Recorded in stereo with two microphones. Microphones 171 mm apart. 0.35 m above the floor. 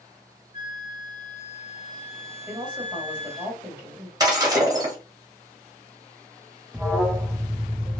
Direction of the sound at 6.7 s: 5° right (ahead or behind).